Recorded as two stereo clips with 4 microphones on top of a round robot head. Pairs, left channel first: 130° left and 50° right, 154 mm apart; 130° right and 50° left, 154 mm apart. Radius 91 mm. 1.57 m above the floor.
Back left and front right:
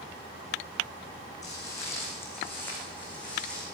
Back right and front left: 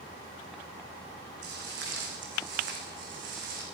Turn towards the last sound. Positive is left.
turn(degrees=45)